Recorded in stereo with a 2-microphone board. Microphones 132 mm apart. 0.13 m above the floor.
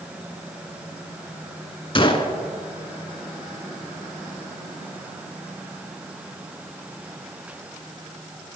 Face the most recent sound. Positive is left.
turn(degrees=35)  # may be behind; listen again after turning